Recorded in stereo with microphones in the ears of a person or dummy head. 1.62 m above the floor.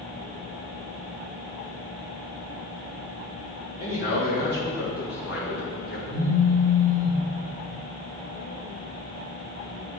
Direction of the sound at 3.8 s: 50° left (ahead or behind).